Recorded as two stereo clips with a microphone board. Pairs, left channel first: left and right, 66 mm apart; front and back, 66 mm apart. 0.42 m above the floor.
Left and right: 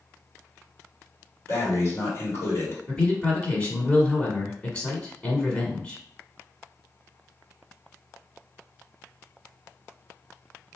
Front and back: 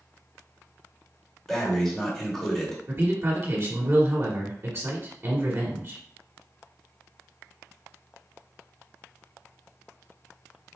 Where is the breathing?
80° left, 1.7 m.